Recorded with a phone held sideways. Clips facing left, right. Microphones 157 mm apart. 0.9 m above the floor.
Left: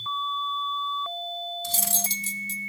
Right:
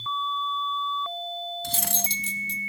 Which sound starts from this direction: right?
Cutlery clinking, at 1.6 s.